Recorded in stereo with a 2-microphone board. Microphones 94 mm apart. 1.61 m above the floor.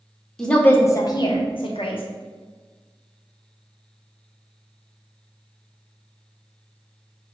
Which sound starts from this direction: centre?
A woman speaking, at 0.4 s.